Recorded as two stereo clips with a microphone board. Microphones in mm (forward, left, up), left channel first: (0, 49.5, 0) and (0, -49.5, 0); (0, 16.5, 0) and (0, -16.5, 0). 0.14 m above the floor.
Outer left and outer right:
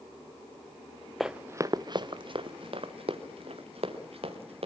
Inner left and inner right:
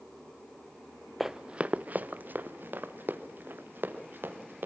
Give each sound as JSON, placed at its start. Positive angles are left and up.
{"t": 1.2, "sound": "running footsteps", "side_deg": 0, "distance_m": 0.8}